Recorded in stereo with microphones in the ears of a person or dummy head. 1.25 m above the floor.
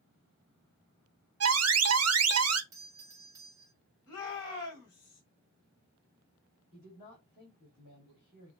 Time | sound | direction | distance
1.4 | an alarm | 75° right (ahead or behind) | 0.8 m
2.7 | a doorbell | 20° right (ahead or behind) | 1.5 m
4.1 | a shout | 20° left (ahead or behind) | 2.5 m
6.7 | a woman speaking | 35° left (ahead or behind) | 2.5 m